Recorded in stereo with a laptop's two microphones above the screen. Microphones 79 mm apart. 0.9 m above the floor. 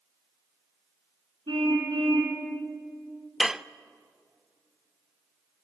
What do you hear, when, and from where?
1.5 s a car horn: 85° right, 4 m
3.4 s dishes clattering: 5° right (ahead or behind), 0.5 m